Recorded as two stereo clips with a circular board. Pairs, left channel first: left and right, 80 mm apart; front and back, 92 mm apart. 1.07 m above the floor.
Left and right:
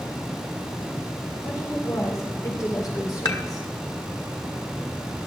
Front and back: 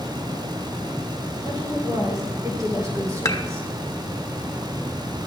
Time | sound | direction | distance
1.4 | a woman speaking | 135° left | 4 m
3.2 | dishes clattering | 50° left | 1.1 m